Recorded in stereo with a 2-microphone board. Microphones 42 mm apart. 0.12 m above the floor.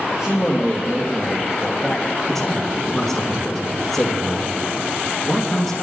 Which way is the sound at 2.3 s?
5° left (ahead or behind).